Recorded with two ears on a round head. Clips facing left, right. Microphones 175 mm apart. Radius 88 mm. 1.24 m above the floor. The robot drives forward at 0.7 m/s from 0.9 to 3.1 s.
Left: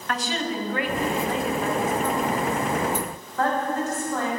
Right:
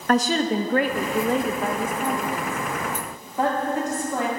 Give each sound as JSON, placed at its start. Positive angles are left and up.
{"t": 0.1, "sound": "a woman speaking", "side_deg": -35, "distance_m": 0.6}